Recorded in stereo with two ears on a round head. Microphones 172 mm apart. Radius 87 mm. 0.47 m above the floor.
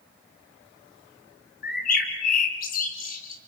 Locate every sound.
1.6 s a bird: 45° left (ahead or behind), 1.7 m